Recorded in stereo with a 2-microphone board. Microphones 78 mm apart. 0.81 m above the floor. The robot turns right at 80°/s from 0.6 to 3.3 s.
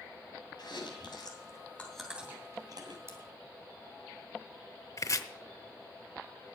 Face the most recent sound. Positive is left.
turn(degrees=45)  # may be behind; listen again after turning